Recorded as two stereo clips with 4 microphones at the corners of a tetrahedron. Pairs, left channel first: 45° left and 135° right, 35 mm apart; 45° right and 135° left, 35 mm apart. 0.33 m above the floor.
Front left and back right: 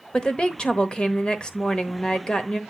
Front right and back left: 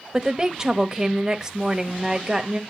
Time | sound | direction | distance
0.1 | a woman speaking | 90° left | 1.0 m